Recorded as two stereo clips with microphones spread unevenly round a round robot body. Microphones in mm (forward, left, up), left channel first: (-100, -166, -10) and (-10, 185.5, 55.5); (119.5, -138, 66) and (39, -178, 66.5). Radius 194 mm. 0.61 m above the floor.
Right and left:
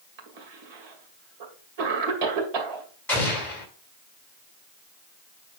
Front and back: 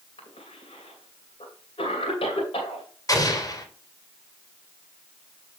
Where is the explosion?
20° right, 3 m.